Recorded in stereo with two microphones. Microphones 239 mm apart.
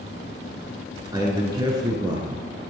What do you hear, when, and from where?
1.1 s a man speaking: 15° right (ahead or behind), 1.6 m